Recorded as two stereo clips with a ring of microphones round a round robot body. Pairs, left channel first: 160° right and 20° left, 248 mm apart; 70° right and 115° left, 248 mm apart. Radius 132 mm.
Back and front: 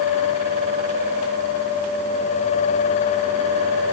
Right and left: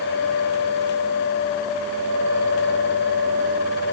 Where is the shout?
I don't hear a shout.